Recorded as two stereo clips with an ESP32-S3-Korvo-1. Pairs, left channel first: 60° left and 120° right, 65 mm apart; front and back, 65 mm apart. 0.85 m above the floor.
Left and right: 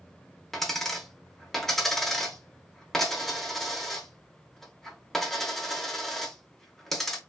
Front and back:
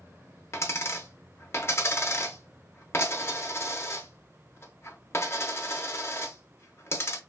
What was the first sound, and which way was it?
A dropped coin, 25° right.